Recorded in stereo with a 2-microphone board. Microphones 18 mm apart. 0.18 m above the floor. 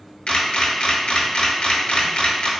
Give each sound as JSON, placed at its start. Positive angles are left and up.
{"t": 0.3, "sound": "a camera shutter", "side_deg": 70, "distance_m": 0.7}